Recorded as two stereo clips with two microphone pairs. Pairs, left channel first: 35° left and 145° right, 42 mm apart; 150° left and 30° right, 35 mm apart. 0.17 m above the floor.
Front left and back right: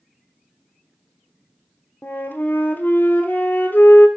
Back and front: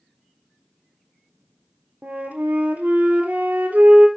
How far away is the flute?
About 1.5 m.